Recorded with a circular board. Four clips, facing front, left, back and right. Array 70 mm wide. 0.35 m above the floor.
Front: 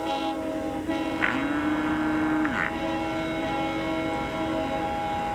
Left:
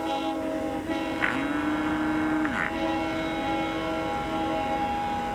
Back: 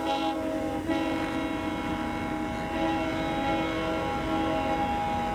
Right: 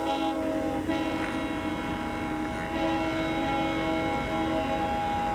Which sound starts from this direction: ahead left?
A blender, at 1.2 s.